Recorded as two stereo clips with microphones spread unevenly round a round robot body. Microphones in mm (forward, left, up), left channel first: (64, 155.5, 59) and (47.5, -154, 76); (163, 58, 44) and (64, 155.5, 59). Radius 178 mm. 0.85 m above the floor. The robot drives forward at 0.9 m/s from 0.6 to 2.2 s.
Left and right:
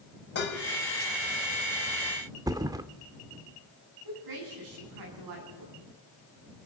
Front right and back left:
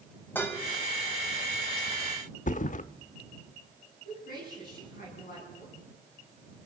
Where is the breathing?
No breathing in this recording.